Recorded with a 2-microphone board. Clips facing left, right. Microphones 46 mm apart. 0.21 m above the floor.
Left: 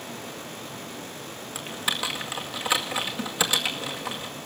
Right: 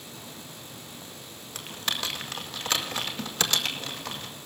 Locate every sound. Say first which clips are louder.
1.6 s typing on a keyboard: left 3 dB; 10° left (ahead or behind), 2 m